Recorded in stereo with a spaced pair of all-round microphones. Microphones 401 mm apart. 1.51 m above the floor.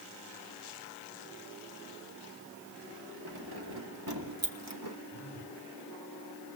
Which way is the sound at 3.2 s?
65° right (ahead or behind).